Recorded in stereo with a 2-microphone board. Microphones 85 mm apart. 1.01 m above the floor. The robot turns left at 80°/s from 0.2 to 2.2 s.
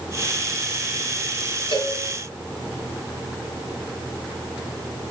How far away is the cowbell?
About 2 m.